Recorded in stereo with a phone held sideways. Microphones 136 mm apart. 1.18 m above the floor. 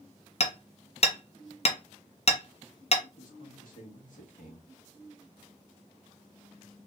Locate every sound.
0.4 s hammering: 50° left (ahead or behind), 0.6 m
3.2 s a man speaking: 80° left, 1.6 m